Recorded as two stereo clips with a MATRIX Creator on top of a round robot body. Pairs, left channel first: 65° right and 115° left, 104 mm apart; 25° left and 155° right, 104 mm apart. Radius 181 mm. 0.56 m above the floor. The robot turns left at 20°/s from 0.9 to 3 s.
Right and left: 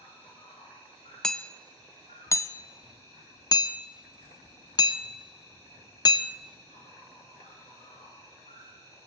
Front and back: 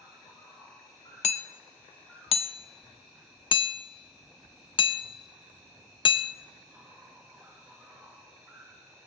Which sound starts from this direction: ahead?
Hammering, at 1.2 s.